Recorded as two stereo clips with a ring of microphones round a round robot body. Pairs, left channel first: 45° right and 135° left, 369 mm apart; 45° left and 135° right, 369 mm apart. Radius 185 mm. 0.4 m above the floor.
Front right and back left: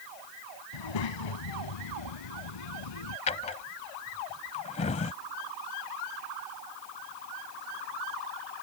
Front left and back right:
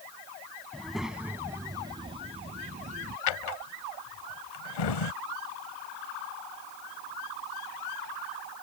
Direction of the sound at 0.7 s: 45° right.